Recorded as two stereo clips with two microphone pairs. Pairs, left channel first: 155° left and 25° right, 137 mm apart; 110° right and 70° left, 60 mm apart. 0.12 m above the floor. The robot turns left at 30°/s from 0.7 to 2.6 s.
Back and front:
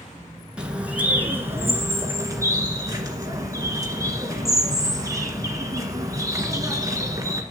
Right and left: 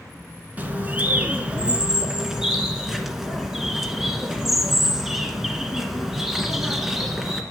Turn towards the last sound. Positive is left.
turn(degrees=-10)